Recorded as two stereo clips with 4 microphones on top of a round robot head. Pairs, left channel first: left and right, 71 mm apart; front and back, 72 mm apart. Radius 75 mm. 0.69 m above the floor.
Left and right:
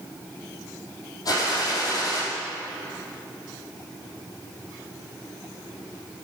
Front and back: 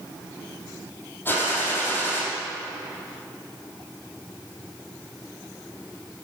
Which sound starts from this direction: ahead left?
A gunshot, at 1.2 s.